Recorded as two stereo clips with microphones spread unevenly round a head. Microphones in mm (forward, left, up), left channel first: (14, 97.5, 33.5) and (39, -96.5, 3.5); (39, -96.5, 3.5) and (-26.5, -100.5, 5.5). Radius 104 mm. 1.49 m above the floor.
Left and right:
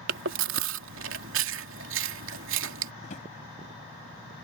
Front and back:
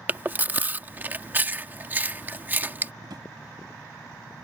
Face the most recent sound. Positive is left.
turn(degrees=150)